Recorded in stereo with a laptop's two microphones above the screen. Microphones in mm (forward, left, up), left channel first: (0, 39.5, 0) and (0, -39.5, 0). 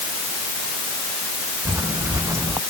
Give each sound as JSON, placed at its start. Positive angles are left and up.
{"t": 1.6, "sound": "footsteps", "side_deg": -35}